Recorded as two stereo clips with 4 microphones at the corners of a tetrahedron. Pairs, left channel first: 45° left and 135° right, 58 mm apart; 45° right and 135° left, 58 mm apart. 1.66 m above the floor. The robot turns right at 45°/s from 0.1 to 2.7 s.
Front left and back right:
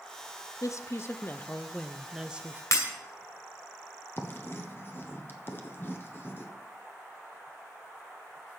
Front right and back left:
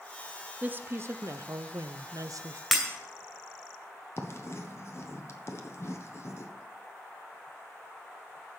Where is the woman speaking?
70° left, 0.7 m; by 2.6 s 160° left, 0.7 m.